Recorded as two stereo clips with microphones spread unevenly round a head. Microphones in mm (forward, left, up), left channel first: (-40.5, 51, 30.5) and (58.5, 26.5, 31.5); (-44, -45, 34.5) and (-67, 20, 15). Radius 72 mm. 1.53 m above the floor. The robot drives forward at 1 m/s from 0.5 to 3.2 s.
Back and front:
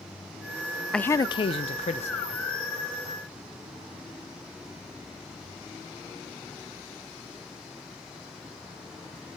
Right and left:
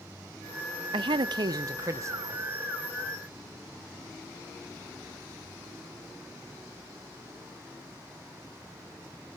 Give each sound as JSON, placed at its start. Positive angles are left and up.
{"t": 0.9, "sound": "a man speaking", "azimuth_deg": 85, "distance_m": 0.5}